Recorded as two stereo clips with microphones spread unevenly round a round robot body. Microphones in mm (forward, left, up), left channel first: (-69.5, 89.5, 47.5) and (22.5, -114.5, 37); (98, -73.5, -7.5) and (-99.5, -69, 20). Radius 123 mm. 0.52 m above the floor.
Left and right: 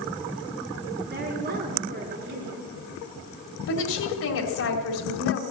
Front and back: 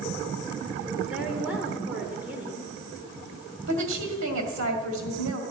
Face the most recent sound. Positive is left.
turn(degrees=140)